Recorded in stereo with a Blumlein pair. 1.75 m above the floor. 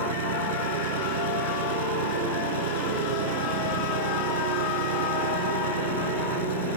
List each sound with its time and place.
0.0 s an engine running: 60° right